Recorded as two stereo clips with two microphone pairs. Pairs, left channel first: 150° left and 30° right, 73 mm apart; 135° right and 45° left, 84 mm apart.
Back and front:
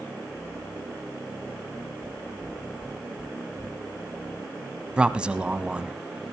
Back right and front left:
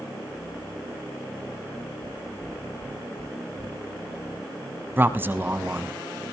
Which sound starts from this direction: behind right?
Knocking, at 2.0 s.